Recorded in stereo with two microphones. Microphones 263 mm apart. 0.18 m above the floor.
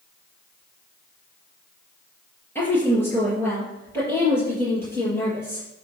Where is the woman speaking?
10° left (ahead or behind), 4 m.